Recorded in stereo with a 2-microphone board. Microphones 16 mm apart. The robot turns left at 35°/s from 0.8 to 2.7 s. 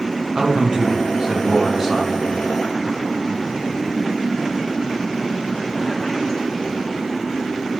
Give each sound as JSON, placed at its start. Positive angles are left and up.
{"t": 0.3, "sound": "a man speaking", "azimuth_deg": -130, "distance_m": 0.9}